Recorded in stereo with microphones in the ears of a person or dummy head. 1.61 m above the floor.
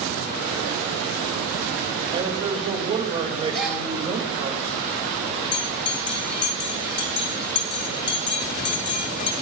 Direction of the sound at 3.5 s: 5° left (ahead or behind).